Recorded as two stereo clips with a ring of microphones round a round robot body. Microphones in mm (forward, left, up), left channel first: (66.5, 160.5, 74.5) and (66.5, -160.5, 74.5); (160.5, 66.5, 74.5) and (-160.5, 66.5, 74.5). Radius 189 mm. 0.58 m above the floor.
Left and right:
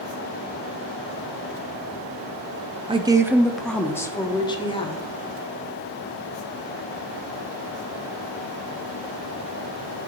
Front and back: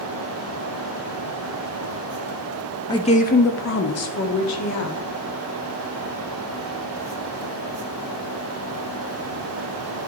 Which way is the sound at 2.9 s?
55° right.